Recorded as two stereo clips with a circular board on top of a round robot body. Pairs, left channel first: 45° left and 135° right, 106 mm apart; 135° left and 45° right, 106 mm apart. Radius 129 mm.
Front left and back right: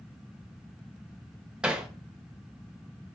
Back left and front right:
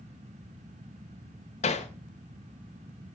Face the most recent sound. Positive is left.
turn(degrees=145)